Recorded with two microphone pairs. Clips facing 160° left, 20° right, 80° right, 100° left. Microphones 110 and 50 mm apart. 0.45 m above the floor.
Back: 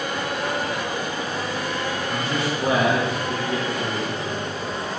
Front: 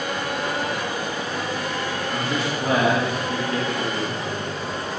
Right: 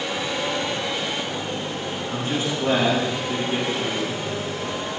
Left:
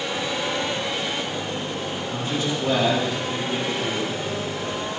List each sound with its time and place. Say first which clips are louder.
2.1 s a man speaking: even, right 1 dB; 135° right, 3.5 m